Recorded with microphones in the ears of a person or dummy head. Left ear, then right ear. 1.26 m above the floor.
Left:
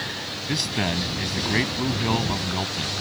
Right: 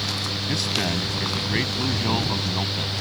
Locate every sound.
0.5 s a man speaking: centre (ahead or behind)